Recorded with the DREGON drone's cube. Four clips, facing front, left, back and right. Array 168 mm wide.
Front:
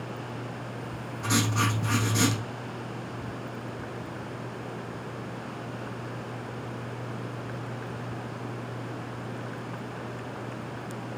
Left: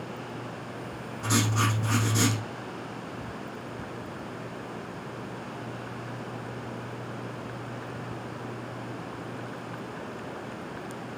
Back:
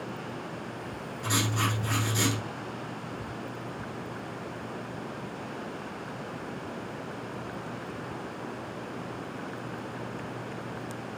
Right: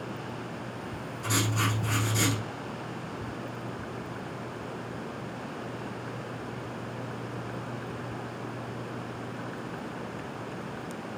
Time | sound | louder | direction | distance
1.2 | writing | left 3 dB, front 3 dB | 45° left | 3.5 m